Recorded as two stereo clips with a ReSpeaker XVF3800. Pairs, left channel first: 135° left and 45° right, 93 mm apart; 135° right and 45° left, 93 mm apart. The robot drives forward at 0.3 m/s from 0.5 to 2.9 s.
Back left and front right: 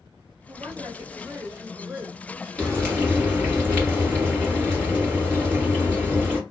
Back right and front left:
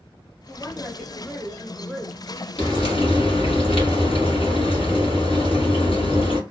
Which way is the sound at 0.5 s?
50° right.